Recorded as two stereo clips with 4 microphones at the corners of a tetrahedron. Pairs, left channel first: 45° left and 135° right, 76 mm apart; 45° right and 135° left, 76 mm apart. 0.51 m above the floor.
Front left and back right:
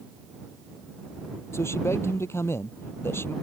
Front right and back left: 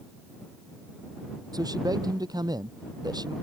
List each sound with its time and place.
1.5 s a man speaking: 100° left; by 3.3 s 105° left